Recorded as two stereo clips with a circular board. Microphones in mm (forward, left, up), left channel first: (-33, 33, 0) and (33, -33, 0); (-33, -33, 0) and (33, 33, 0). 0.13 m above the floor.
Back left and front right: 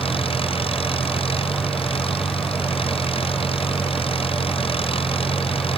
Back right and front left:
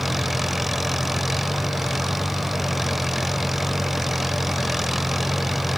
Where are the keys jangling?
No keys jangling in this recording.